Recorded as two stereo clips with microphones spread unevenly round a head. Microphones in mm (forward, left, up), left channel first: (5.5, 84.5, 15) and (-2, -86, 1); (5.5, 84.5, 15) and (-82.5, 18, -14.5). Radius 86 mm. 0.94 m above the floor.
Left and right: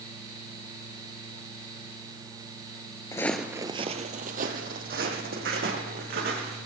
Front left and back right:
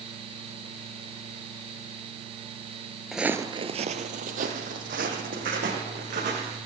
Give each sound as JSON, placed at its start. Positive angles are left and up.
{"t": 3.1, "sound": "footsteps", "azimuth_deg": 85, "distance_m": 0.9}